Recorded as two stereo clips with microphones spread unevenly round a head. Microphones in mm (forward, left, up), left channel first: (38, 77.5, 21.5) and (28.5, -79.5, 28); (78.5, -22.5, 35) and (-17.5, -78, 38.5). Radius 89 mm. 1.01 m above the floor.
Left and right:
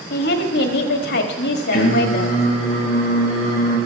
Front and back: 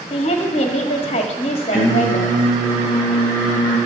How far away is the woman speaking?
About 1.6 m.